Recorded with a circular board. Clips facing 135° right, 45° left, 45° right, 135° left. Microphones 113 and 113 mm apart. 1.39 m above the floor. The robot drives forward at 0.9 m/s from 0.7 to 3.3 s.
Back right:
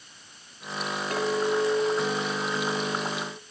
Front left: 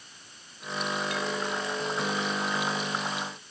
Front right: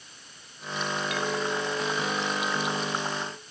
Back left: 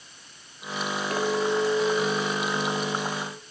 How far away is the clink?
About 1.4 m.